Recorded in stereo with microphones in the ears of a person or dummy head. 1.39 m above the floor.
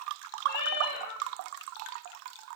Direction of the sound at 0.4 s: 65° left (ahead or behind).